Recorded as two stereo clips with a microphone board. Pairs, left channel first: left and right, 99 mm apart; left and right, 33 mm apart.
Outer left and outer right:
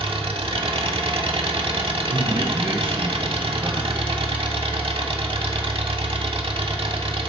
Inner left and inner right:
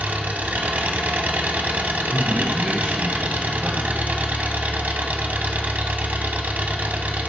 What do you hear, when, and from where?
0.0 s an engine running: 70° right (ahead or behind), 0.7 m
2.1 s a man speaking: 55° right (ahead or behind), 3 m